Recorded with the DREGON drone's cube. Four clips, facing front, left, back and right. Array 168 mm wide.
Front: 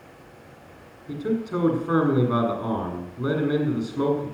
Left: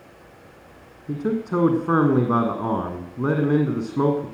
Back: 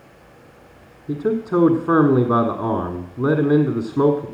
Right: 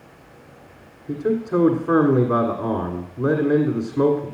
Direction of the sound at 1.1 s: 165° left.